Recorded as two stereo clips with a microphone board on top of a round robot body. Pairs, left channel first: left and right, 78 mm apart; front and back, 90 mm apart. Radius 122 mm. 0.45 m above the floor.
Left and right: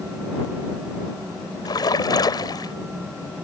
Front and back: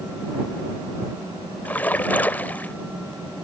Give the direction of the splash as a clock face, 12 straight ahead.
10 o'clock.